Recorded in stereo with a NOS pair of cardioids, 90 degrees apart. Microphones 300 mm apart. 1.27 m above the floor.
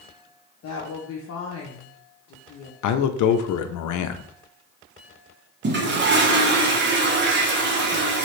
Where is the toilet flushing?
35° right, 1.0 m.